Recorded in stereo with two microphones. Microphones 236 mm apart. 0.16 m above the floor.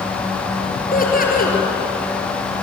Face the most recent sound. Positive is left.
turn(degrees=40)  # may be behind; listen again after turning